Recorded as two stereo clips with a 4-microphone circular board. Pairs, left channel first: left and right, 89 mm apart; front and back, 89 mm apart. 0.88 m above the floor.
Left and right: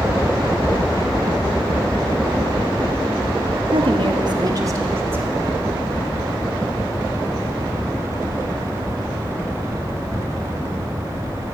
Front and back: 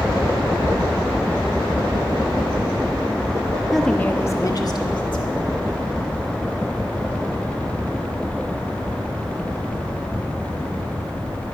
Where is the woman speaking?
90° right, 0.9 m; by 5.6 s 20° right, 1.7 m.